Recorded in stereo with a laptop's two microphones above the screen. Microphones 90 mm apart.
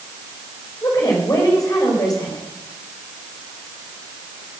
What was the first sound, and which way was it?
A woman speaking, 40° left (ahead or behind).